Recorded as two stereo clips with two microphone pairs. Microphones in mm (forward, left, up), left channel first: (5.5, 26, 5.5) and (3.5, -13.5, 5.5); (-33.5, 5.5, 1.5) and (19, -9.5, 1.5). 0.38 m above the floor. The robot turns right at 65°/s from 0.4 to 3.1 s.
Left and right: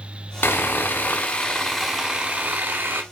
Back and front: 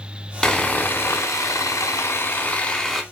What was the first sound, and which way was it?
Sawing, 85° left.